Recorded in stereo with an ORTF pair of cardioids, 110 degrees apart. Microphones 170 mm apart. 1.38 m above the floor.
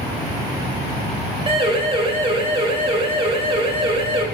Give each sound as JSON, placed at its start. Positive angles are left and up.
{"t": 1.5, "sound": "a siren", "azimuth_deg": -30, "distance_m": 6.0}